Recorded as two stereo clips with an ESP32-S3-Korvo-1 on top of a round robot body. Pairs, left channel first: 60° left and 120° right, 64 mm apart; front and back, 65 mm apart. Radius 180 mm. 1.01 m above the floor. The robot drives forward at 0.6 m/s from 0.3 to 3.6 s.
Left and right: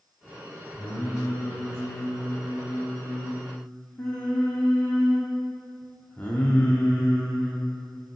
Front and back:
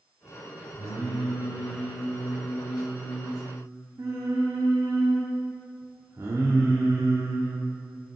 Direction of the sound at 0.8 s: 15° left.